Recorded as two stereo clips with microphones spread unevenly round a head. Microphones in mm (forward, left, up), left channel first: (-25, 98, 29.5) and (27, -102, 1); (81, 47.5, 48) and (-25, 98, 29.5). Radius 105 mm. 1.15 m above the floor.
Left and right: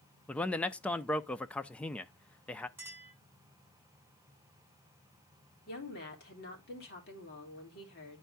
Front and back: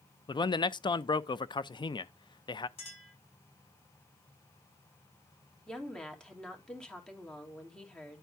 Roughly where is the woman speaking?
Ahead left.